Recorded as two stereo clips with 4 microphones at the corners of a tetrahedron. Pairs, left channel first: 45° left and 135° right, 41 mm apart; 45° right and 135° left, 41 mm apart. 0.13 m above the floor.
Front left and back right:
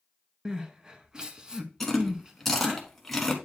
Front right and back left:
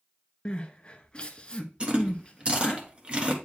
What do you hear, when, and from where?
0.5 s crying: 85° right, 0.6 m
1.8 s chewing: 130° left, 1.3 m